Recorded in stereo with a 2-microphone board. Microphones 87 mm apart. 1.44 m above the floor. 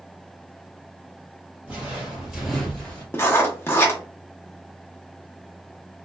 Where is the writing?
30° left (ahead or behind), 0.8 m.